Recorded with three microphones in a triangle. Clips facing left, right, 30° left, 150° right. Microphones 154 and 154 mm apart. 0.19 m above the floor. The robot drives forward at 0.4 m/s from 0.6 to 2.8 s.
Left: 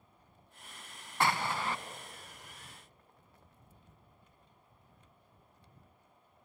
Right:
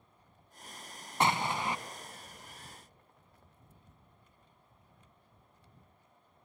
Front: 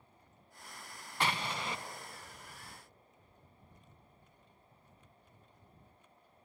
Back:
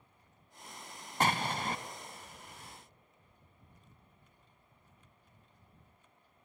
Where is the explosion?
150° right, 0.7 m; by 1.8 s 160° right, 0.9 m.